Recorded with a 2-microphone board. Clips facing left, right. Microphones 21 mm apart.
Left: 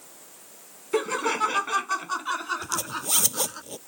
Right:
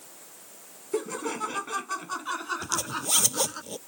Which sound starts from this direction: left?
Laughter, at 0.9 s.